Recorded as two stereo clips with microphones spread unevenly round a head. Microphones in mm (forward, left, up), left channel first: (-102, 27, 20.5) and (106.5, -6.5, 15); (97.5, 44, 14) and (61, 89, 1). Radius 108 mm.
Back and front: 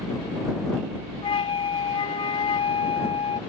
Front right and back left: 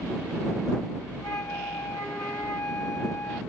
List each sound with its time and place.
1.2 s a flute: 120° right